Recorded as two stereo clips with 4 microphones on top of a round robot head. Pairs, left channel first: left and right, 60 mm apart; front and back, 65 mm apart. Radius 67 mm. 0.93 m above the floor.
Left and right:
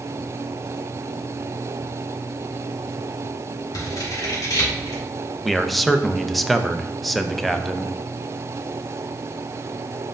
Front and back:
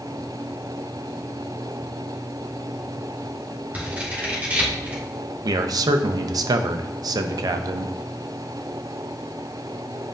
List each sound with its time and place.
3.7 s scissors: 110° left, 2.5 m
5.4 s a man speaking: straight behind, 0.6 m